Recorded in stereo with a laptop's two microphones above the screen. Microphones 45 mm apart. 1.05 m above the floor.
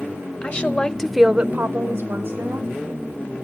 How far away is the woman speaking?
About 1.1 m.